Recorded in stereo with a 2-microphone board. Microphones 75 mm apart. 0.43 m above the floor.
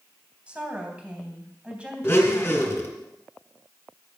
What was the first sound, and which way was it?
A woman speaking, 15° right (ahead or behind).